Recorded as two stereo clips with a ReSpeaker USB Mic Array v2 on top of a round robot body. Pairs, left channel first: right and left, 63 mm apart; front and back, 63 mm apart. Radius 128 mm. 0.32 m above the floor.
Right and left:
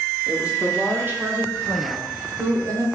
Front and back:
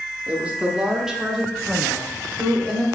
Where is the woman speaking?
150° left, 1.3 m; by 2.9 s 75° left, 2.0 m.